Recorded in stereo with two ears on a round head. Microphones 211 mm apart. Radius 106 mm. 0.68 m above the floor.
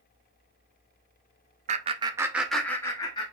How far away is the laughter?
About 0.6 m.